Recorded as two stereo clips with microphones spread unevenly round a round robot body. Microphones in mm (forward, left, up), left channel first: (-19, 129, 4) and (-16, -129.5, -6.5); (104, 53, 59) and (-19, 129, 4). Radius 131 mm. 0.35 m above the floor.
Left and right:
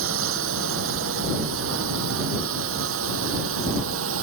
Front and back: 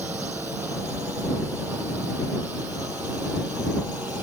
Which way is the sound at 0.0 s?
130° right.